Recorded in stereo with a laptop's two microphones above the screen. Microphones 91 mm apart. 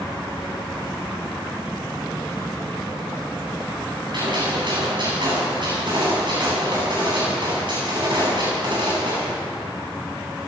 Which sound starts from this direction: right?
A gunshot, at 4.1 s.